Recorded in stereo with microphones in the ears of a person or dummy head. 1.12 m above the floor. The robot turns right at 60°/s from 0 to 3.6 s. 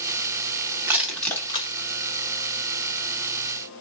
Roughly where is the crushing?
Centre.